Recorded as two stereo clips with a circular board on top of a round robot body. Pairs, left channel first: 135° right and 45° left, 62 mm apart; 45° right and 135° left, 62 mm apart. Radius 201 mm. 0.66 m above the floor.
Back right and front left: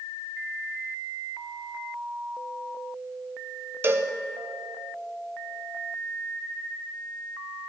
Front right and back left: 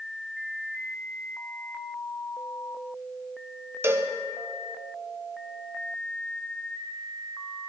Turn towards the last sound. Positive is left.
turn(degrees=95)